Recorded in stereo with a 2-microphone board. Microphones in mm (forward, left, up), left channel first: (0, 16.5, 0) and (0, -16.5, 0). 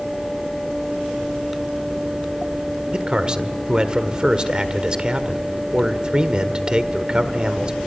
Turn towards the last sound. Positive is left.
turn(degrees=-25)  # may be behind; listen again after turning